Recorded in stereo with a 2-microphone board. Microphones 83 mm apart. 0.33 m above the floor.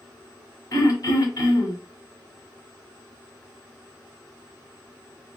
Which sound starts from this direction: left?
Throat clearing, at 0.7 s.